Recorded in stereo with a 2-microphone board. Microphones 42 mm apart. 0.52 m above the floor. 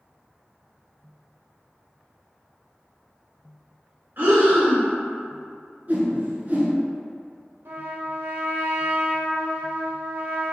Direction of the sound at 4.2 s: 55° right (ahead or behind).